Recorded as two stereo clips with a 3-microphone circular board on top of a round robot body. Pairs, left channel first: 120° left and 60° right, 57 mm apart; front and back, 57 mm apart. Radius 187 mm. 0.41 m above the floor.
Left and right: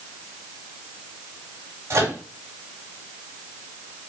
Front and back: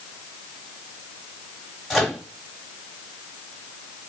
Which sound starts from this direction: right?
A microwave, at 1.9 s.